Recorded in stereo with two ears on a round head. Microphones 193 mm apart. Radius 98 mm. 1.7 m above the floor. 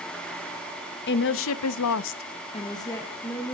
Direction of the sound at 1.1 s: 55° left (ahead or behind).